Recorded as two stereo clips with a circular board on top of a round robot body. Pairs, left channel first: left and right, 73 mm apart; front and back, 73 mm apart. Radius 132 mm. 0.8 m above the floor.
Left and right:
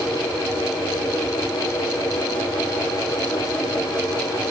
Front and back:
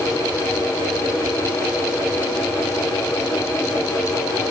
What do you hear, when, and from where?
Only background noise.